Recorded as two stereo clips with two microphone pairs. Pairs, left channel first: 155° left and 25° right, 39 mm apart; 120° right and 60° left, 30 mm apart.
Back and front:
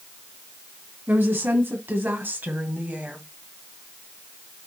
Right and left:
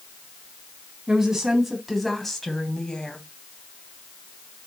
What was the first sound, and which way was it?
A woman speaking, 10° right.